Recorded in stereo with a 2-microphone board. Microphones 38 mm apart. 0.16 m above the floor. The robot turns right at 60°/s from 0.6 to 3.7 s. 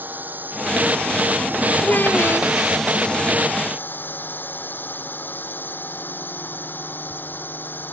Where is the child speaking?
50° left; by 2.5 s 95° left.